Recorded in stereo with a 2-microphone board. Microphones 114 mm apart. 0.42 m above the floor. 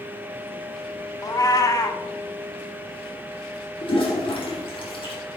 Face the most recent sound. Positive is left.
turn(degrees=50)  # may be behind; listen again after turning